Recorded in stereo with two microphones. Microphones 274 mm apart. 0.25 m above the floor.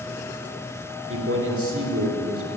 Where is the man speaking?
50° right (ahead or behind), 3 m.